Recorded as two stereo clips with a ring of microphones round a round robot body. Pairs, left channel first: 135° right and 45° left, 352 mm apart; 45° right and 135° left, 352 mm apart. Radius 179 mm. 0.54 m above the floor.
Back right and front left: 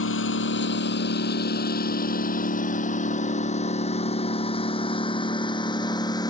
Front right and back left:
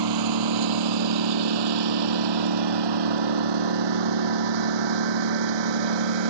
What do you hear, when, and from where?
0.0 s a lawn mower: 165° left; by 6.3 s 145° left